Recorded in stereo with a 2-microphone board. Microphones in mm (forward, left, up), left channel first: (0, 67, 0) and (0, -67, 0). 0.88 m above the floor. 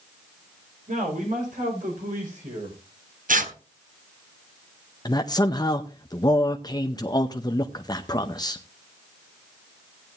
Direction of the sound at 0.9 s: 75° right (ahead or behind).